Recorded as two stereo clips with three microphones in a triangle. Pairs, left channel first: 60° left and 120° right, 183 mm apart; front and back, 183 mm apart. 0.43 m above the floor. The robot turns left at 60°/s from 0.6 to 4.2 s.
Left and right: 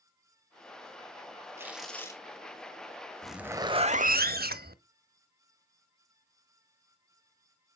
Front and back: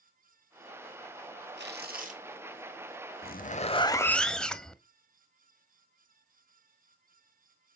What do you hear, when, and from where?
1.6 s tearing paper: 165° left, 1.9 m; by 2.2 s 125° left, 1.9 m
3.2 s a zipper: 25° right, 0.7 m; by 4.8 s 85° right, 0.7 m